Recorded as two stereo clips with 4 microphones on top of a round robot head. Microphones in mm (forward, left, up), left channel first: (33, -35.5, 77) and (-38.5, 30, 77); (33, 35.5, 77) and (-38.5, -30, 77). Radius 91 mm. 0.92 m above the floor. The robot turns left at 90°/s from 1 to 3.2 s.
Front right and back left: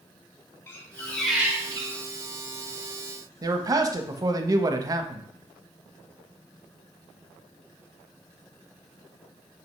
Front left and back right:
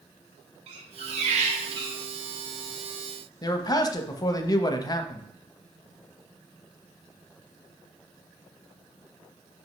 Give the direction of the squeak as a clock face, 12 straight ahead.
4 o'clock.